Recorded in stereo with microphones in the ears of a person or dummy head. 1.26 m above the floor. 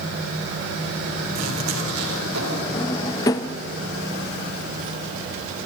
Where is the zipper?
85° right, 3 m.